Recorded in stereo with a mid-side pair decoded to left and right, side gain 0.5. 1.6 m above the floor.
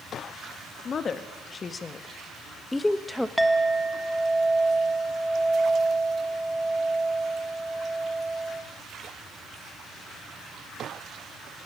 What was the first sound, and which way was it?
A woman speaking, 45° left.